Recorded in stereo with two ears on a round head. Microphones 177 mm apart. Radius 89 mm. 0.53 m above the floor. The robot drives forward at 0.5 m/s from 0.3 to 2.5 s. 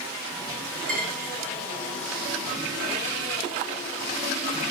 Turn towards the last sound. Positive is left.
turn(degrees=-40)  # may be behind; listen again after turning